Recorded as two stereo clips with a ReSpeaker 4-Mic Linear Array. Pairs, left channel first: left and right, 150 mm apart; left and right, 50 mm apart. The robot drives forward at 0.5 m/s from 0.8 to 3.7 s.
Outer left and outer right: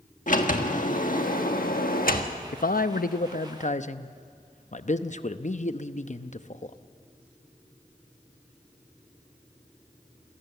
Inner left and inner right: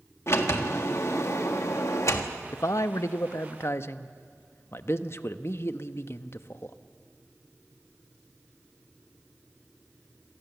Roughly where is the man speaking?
Left.